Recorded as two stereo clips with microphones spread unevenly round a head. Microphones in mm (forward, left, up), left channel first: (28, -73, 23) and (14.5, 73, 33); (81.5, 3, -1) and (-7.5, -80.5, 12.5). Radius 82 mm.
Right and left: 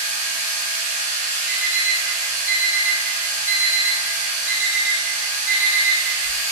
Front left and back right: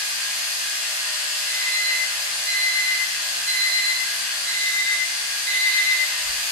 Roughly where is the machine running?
Ahead right.